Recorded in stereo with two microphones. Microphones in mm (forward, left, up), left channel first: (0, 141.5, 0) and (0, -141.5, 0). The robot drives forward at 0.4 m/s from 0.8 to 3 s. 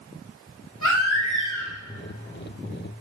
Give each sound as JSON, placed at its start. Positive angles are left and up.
{"t": 0.8, "sound": "a baby crying", "side_deg": 90, "distance_m": 4.0}